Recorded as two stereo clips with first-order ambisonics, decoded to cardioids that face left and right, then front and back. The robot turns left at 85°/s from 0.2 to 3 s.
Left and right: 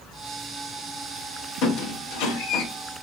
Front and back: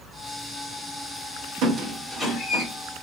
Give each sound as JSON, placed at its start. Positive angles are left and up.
{"t": 1.6, "sound": "a squeak", "azimuth_deg": 130, "distance_m": 0.6}